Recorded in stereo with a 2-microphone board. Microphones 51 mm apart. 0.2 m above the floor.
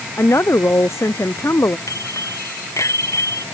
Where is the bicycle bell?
85° left.